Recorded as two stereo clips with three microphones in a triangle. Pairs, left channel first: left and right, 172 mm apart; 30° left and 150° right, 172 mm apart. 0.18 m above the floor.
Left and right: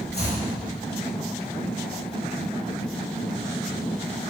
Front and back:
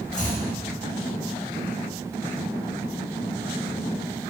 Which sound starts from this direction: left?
Chopping, at 0.1 s.